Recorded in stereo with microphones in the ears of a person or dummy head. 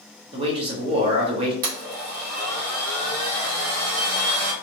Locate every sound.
0.3 s a man speaking: 25° right (ahead or behind), 1.0 m
1.6 s a blender: 45° right (ahead or behind), 0.8 m